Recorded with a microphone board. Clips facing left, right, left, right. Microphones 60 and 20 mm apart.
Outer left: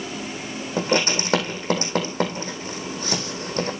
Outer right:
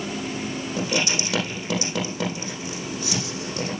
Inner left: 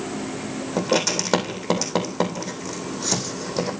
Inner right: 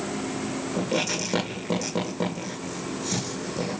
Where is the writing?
45° left (ahead or behind), 4 m.